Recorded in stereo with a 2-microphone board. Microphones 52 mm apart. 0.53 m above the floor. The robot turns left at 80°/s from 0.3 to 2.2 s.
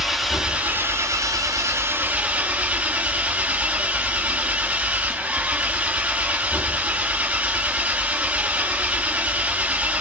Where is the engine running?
5° right, 2 m; by 10.0 s 155° right, 2 m.